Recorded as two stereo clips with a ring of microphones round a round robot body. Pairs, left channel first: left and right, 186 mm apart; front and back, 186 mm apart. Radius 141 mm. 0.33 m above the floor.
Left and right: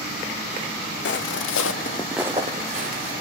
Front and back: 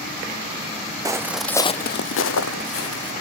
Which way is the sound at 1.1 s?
105° left.